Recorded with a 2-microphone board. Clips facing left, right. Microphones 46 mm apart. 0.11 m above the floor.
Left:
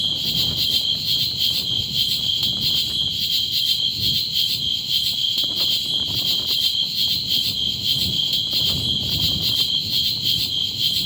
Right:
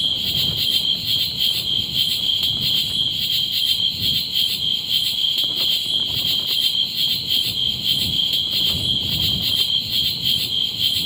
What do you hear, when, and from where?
0.0 s an insect: 20° right (ahead or behind)